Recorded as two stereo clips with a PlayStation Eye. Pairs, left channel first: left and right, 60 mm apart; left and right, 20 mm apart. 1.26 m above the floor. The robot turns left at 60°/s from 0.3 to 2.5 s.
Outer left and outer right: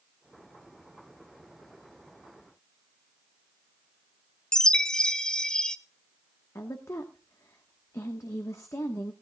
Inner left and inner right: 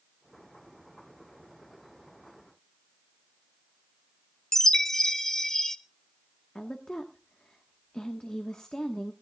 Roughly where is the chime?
Centre.